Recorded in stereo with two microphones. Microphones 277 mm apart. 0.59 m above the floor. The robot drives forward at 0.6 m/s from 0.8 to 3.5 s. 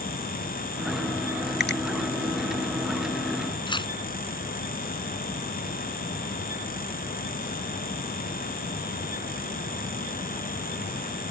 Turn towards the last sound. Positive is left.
turn(degrees=20)  # may be behind; listen again after turning